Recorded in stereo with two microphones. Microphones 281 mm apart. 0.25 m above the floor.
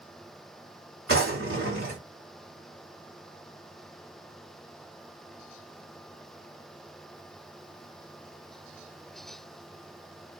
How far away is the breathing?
I don't hear breathing.